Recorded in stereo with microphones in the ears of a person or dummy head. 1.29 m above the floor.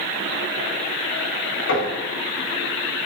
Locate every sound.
1.7 s knocking: 70° left (ahead or behind), 2.5 m